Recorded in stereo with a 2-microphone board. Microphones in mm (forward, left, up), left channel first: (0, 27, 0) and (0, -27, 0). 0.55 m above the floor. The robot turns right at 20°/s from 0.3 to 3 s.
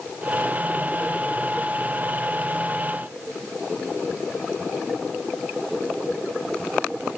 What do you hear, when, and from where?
Only background noise.